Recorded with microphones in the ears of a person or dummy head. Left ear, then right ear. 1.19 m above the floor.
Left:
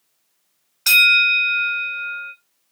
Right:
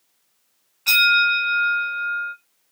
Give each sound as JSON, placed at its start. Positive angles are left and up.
{"t": 0.9, "sound": "a bell", "side_deg": 75, "distance_m": 2.0}